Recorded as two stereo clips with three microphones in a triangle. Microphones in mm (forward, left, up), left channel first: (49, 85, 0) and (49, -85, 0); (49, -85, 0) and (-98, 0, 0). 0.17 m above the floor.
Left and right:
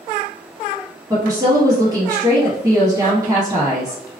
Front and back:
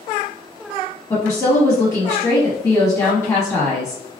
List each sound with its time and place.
1.1 s a woman speaking: 70° right, 1.1 m